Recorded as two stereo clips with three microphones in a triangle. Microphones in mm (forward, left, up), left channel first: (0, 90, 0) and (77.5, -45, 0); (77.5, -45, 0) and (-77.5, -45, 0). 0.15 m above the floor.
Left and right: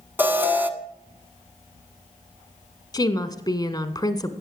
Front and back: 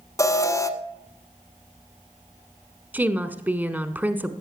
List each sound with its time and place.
0.2 s an alarm: 5° right, 1.1 m
2.9 s a woman speaking: 120° left, 1.2 m